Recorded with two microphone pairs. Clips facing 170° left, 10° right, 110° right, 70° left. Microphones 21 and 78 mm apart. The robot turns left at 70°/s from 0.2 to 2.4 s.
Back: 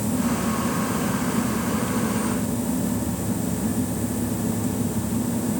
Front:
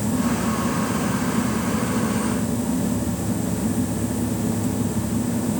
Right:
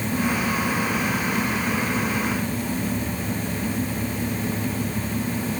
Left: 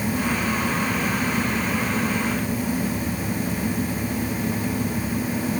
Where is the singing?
I don't hear singing.